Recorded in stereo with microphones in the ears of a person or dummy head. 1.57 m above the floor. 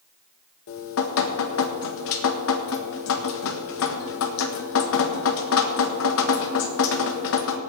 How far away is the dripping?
About 1.3 m.